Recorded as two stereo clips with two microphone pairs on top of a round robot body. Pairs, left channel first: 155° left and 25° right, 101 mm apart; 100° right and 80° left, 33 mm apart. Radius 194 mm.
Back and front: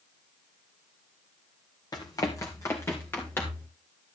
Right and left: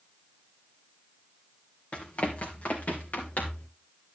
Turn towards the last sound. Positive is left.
turn(degrees=-135)